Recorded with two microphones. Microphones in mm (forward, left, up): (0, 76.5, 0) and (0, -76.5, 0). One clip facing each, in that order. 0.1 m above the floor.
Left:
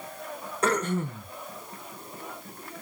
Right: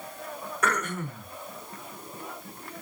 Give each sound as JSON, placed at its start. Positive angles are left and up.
{"t": 0.6, "sound": "throat clearing", "side_deg": 30, "distance_m": 0.7}